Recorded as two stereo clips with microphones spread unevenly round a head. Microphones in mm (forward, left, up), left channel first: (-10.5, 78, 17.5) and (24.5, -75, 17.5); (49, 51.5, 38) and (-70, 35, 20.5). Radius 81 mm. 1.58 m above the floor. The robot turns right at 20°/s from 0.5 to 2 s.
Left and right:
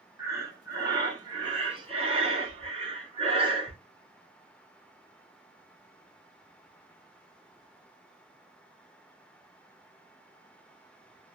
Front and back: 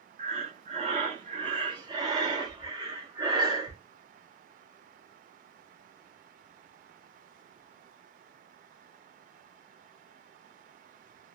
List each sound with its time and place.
0.2 s breathing: 140° right, 0.9 m; by 3.8 s 110° right, 0.9 m